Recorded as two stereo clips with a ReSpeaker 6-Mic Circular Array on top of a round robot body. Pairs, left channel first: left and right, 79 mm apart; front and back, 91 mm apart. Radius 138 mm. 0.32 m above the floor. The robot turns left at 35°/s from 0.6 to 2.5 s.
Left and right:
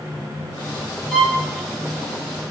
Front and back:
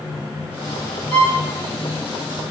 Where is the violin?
5° left, 2.5 m; by 1.4 s 5° right, 2.5 m.